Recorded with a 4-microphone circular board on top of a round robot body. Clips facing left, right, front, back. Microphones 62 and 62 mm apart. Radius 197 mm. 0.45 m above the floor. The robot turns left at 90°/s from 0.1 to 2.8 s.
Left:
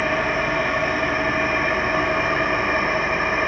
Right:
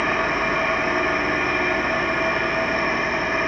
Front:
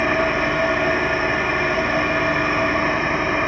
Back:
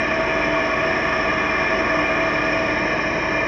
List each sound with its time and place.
0.0 s an engine running: 75° right, 1.6 m; by 3.5 s 40° left, 1.6 m